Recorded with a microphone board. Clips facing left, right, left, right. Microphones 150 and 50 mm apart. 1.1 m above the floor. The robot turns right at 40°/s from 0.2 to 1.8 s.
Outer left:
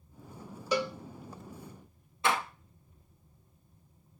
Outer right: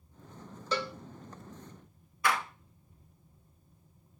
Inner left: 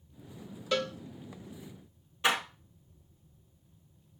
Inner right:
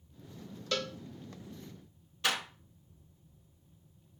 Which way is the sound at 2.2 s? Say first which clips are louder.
Outer left 1 dB, inner left 4 dB; 25° left (ahead or behind).